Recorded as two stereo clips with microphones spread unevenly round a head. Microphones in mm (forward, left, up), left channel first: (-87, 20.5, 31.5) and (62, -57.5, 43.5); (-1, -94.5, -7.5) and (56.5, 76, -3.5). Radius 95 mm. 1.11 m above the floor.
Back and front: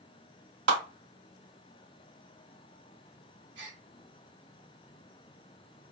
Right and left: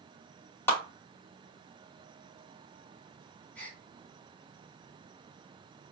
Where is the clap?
30° right, 2.5 m.